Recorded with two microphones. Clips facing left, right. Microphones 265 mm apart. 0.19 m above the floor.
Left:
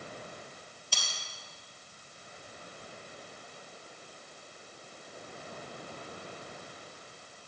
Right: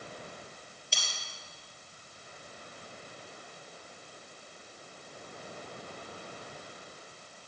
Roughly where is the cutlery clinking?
Right.